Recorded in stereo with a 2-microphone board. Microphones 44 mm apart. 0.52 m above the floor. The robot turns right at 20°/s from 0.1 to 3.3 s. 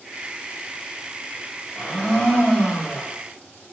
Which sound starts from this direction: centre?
A blender, at 1.8 s.